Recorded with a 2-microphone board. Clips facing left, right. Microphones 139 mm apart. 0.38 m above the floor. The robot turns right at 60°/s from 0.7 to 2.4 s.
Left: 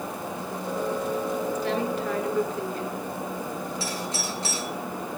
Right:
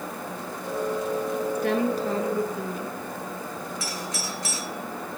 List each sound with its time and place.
1.6 s a woman speaking: 65° right, 5.5 m; by 3.0 s 15° right, 5.5 m
3.8 s a doorbell: 30° left (ahead or behind), 6 m